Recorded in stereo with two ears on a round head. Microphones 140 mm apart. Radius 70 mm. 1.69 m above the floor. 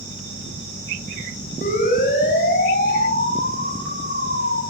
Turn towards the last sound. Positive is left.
turn(degrees=70)  # may be behind; listen again after turning